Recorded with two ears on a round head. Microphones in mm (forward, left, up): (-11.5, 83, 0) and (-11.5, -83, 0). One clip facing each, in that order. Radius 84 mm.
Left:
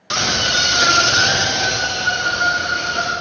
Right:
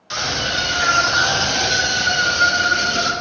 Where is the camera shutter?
No camera shutter in this recording.